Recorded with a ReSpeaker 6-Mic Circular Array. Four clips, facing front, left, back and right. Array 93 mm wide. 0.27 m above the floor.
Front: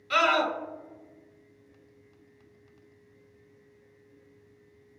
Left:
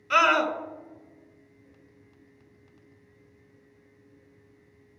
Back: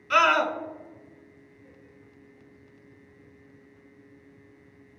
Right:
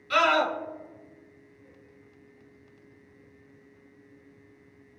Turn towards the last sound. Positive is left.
turn(degrees=125)